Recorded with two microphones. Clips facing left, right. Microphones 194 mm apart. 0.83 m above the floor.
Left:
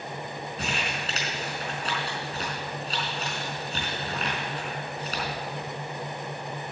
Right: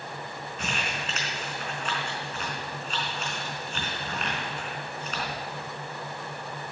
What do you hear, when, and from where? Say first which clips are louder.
0.6 s crumpling: even; 35° left (ahead or behind), 4 m